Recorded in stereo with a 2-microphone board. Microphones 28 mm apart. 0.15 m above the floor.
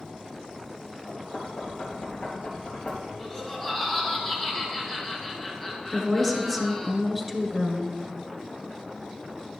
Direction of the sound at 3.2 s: 25° left (ahead or behind).